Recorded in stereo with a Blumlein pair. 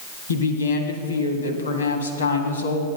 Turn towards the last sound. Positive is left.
turn(degrees=70)